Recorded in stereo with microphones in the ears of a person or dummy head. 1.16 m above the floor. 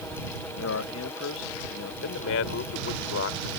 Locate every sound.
0.5 s a man speaking: 75° left (ahead or behind)
2.0 s a man speaking: 80° left